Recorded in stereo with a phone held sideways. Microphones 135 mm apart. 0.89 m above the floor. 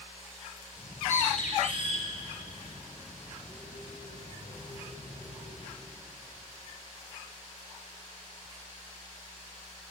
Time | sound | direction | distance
0.8 | a bird | 65° left (ahead or behind) | 3 m